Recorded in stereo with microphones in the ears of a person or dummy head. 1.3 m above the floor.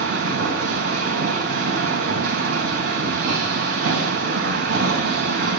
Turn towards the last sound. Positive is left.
turn(degrees=-50)  # may be behind; listen again after turning